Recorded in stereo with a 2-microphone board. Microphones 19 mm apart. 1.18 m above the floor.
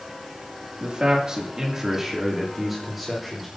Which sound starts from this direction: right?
A man speaking, at 0.8 s.